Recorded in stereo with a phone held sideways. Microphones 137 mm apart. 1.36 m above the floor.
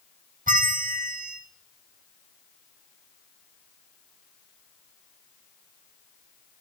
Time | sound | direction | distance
0.5 | a bell | 80° right | 1.2 m